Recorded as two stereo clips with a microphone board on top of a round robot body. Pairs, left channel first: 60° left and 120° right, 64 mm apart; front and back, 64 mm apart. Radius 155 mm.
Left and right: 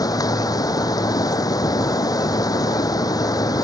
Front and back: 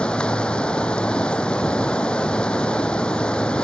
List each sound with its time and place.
0.0 s running water: 75° left